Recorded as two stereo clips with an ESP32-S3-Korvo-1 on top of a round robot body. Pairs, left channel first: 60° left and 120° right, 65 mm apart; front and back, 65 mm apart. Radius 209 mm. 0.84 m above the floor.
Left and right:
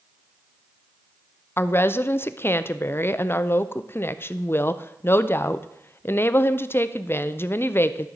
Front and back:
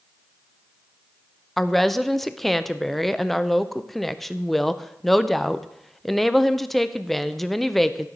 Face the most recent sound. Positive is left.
turn(degrees=85)